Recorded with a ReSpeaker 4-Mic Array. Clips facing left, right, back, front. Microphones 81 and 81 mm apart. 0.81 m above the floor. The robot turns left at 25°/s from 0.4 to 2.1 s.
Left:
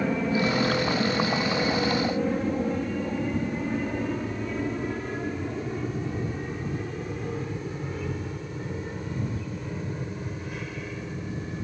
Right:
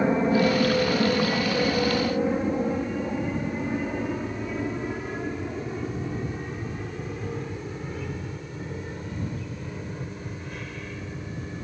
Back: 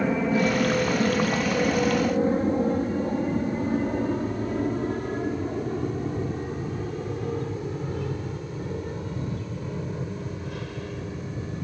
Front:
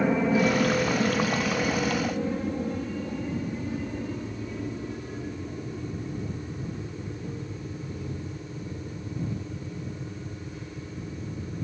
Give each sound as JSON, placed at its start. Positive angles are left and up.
{"t": 0.0, "sound": "an aircraft", "azimuth_deg": -80}